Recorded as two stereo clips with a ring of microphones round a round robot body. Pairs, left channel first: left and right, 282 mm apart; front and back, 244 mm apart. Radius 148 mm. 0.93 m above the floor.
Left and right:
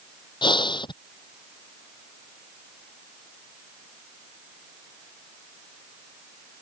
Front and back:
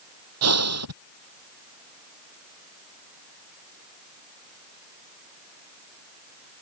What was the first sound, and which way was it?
Breathing, 165° left.